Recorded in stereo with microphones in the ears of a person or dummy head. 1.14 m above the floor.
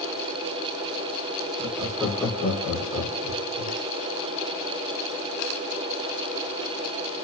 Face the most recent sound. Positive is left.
turn(degrees=65)  # may be behind; listen again after turning